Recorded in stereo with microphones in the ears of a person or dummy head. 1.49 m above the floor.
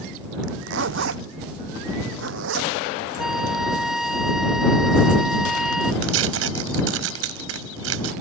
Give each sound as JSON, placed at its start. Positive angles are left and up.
{"t": 0.4, "sound": "a zipper", "side_deg": -75}
{"t": 3.2, "sound": "a flute", "side_deg": 0}
{"t": 6.0, "sound": "tearing paper", "side_deg": -85}